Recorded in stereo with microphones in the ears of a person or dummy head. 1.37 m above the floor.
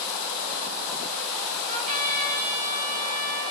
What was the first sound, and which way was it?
A trumpet, 45° right (ahead or behind).